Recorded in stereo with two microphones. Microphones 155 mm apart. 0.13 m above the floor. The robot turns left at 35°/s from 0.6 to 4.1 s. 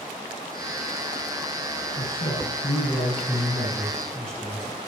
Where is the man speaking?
80° left, 8.5 m; by 4.8 s 5° left, 8.5 m.